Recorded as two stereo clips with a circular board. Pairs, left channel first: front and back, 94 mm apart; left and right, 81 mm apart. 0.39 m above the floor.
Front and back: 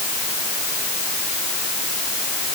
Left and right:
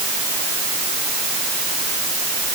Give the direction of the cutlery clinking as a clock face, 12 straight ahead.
I don't hear cutlery clinking.